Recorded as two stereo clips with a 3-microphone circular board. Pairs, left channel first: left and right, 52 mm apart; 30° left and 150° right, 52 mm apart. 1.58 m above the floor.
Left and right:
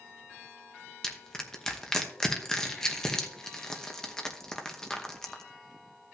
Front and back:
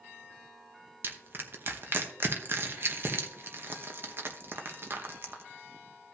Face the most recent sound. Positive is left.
turn(degrees=170)